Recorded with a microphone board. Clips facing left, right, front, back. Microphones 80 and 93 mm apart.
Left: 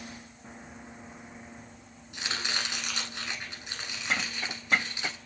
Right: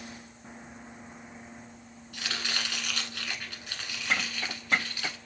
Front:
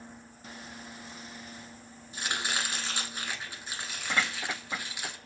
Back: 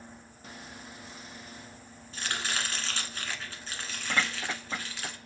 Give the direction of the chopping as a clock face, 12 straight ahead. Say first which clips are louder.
Left 1 dB, front 1 dB; 10 o'clock.